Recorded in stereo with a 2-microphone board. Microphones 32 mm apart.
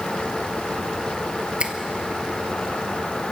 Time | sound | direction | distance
1.6 | a finger snap | 40° right (ahead or behind) | 1.4 m